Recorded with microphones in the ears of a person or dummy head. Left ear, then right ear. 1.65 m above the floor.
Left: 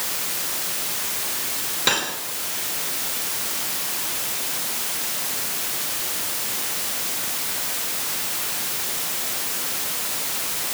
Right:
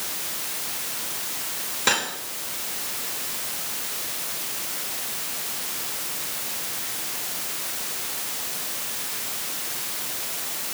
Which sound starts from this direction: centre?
Cutlery clinking, at 1.9 s.